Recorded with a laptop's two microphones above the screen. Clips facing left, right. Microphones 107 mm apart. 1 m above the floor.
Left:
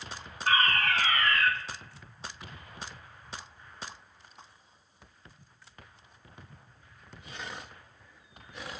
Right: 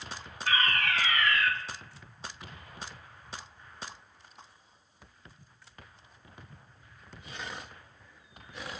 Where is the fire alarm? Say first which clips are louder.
Left 3 dB; 40° left (ahead or behind), 1.9 m.